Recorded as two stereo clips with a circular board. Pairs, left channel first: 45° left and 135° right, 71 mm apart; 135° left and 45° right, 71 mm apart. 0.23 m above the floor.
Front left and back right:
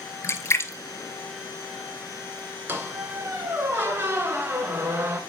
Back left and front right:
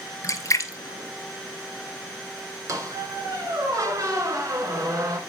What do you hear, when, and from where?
0.2 s a splash: 95° left, 0.9 m
2.7 s a squeak: 80° right, 1.8 m